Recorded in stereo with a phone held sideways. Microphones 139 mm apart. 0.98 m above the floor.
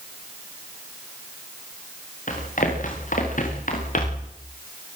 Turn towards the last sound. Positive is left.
turn(degrees=70)  # may be behind; listen again after turning